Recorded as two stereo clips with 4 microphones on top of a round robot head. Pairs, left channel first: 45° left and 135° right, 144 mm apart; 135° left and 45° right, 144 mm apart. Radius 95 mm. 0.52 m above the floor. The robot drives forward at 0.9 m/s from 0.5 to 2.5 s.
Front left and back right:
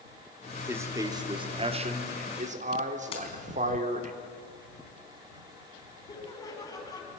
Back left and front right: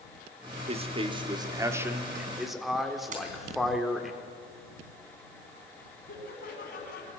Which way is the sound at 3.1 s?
5° right.